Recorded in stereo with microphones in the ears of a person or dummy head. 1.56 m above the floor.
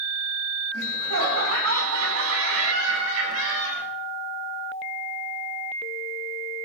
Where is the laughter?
90° right, 6.5 m; by 3.8 s 85° right, 5 m.